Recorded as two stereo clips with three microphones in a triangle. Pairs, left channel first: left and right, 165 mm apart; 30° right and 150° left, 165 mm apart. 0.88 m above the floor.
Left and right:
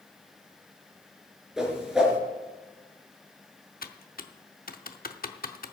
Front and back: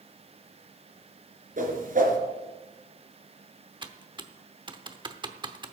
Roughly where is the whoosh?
Behind.